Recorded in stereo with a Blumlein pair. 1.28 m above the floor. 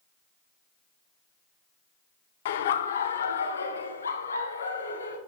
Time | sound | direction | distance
2.5 | laughter | 55° left | 0.7 m